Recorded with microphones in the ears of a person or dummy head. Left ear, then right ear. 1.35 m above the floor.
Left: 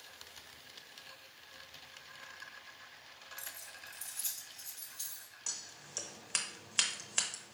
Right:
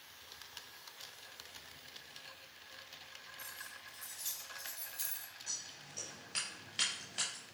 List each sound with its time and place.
3.4 s keys jangling: 60° left (ahead or behind), 1.3 m; by 5.3 s 30° right (ahead or behind), 0.8 m
5.5 s scissors: 50° left (ahead or behind), 0.8 m